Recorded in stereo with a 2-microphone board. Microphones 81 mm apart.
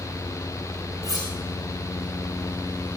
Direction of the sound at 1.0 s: 45° right (ahead or behind).